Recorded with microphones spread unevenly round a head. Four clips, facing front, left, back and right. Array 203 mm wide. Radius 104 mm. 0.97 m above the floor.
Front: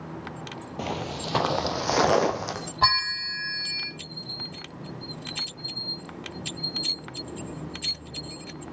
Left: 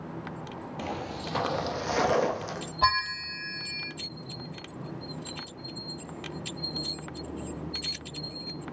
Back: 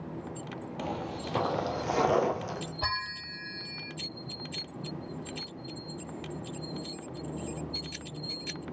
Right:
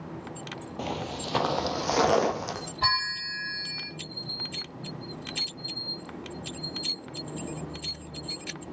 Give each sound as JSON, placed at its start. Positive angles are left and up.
{"t": 0.8, "sound": "footsteps", "azimuth_deg": -30, "distance_m": 1.2}
{"t": 2.8, "sound": "a bell", "azimuth_deg": 15, "distance_m": 3.5}